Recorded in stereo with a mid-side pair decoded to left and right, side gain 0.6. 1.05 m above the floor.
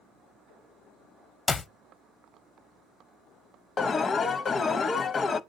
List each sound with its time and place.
1.5 s a clap: 25° left, 0.5 m
3.8 s an alarm: 30° left, 0.5 m